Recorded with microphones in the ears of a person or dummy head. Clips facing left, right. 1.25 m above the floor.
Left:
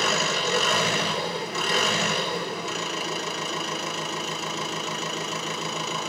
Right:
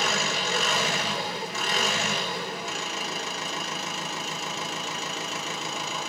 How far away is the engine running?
About 4 m.